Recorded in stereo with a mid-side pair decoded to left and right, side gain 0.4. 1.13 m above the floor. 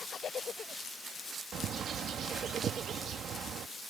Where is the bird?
70° right.